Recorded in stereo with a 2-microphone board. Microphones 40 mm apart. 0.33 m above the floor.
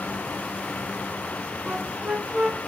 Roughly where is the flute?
Right.